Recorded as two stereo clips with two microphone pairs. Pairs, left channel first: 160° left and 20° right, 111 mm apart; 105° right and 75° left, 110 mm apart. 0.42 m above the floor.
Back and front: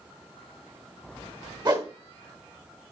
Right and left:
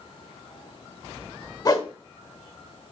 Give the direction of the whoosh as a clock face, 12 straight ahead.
2 o'clock.